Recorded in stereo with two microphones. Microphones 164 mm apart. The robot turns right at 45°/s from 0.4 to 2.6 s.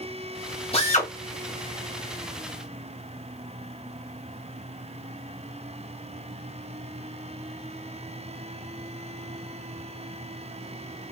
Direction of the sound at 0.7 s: 40° left (ahead or behind).